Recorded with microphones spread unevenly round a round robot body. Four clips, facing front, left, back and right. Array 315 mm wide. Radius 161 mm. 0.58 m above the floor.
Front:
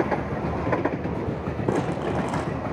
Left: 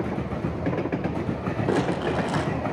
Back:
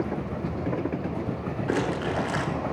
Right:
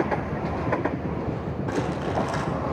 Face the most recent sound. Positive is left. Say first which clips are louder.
# left 3 dB, front 2 dB
turn(degrees=25)